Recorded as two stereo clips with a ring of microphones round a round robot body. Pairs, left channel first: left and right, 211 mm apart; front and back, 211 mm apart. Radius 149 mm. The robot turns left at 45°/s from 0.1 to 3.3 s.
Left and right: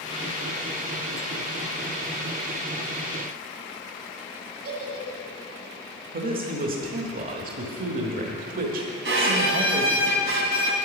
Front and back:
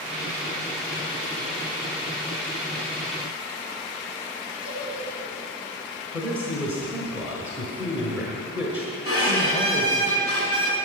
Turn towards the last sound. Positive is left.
turn(degrees=-110)